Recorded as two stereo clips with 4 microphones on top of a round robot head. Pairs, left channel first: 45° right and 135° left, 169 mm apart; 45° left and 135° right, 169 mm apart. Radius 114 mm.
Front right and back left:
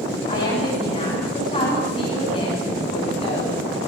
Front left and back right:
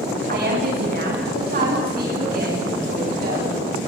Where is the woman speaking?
95° right, 9 m; by 3.6 s 100° right, 11 m.